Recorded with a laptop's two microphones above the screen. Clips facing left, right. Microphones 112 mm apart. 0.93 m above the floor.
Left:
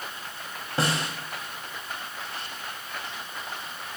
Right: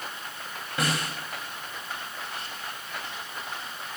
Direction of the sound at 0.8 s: 30° left (ahead or behind).